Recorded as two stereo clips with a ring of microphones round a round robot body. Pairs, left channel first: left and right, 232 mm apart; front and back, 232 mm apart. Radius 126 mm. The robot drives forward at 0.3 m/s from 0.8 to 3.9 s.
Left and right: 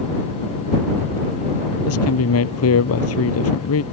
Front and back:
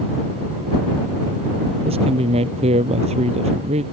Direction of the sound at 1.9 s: 110° left.